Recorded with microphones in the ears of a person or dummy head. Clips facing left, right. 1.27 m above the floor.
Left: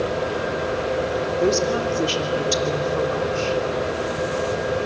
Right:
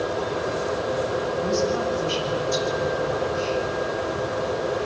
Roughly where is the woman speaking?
Left.